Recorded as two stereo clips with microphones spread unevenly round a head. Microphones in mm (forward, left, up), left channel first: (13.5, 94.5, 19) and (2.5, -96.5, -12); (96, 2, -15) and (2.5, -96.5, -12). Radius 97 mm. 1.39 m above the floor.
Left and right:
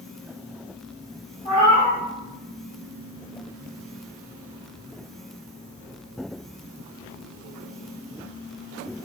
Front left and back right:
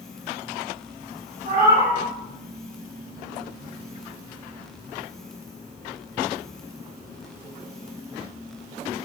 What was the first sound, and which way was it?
A cat meowing, 150° left.